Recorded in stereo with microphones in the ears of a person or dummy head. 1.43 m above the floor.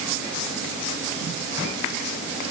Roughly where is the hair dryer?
I don't hear a hair dryer.